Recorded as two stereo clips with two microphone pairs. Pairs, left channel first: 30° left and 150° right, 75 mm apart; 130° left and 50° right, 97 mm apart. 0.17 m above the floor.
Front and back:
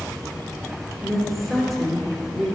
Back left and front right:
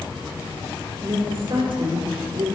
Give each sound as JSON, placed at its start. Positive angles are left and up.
{"t": 1.0, "sound": "a woman speaking", "azimuth_deg": -60, "distance_m": 2.5}